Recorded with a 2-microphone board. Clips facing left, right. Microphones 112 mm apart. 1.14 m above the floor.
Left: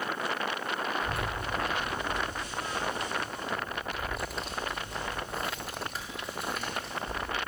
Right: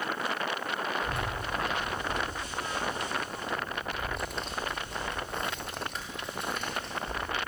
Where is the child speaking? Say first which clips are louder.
Even; 5° left (ahead or behind), 1.3 m.